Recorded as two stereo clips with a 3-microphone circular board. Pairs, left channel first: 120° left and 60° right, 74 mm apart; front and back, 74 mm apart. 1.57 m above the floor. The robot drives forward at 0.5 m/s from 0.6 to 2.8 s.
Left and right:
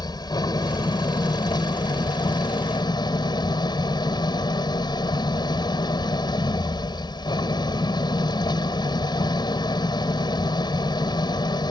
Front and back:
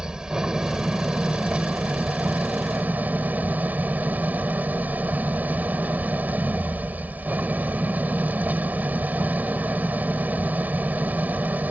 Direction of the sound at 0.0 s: 100° left.